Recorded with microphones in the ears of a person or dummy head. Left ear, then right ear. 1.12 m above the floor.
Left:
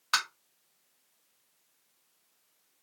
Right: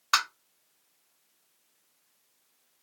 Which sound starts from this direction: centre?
Tapping, at 0.1 s.